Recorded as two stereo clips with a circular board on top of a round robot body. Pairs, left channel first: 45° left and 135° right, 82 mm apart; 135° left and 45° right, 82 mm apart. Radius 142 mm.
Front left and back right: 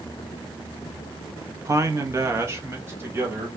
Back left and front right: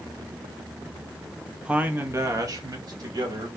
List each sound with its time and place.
1.6 s a man speaking: 120° right, 0.8 m; by 3.5 s 75° right, 2 m